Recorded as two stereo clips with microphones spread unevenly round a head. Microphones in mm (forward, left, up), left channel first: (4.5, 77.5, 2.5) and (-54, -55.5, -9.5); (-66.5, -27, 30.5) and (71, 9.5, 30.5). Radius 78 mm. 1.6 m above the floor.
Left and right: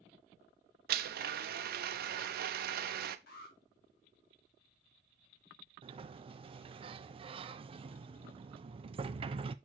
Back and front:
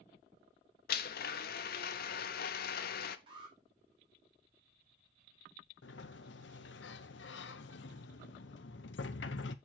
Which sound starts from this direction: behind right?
A blender, at 0.9 s.